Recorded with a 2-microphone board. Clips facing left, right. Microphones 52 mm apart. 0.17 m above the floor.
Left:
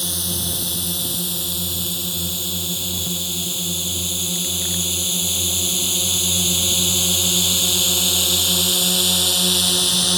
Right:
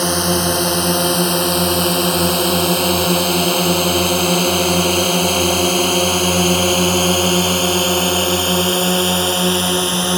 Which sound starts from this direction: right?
A drone, at 0.0 s.